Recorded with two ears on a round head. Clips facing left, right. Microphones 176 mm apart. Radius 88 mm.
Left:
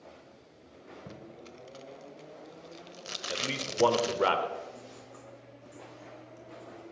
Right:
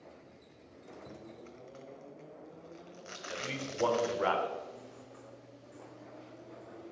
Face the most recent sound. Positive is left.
turn(degrees=60)  # may be behind; listen again after turning